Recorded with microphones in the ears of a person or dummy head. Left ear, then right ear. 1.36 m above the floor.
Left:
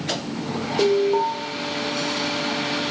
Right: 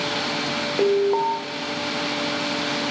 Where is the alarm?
20° right (ahead or behind), 0.6 m.